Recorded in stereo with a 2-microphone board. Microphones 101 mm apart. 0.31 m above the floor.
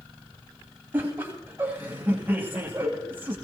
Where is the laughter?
20° right (ahead or behind), 2.5 m.